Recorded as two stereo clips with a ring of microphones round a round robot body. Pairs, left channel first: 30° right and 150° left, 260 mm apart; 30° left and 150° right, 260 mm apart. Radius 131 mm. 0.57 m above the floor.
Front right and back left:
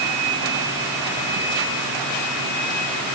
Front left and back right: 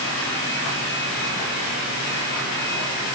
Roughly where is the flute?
I don't hear a flute.